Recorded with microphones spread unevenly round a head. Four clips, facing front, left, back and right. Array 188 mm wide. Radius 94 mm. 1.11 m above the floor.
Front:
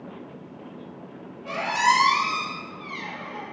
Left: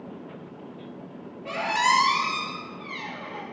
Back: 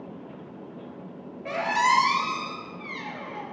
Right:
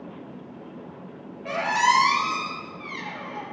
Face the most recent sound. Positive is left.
turn(degrees=-115)